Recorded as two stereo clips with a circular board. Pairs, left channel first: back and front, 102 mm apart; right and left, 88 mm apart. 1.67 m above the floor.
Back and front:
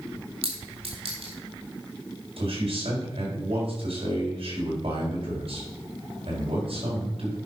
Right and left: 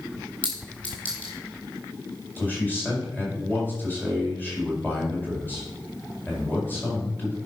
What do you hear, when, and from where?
0.4 s a clink: 15° right, 4 m
2.4 s a man speaking: 20° right, 4.5 m